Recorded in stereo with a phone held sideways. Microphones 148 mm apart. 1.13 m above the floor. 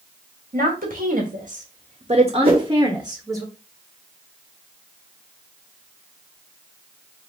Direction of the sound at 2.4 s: 40° right (ahead or behind).